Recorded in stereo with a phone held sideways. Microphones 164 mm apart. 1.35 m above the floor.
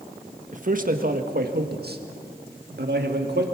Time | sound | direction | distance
0.5 | a man speaking | 50° right (ahead or behind) | 1.5 m